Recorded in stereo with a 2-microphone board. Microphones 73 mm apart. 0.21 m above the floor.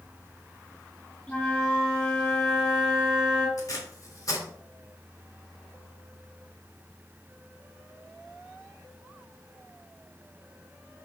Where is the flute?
20° left (ahead or behind), 3 m.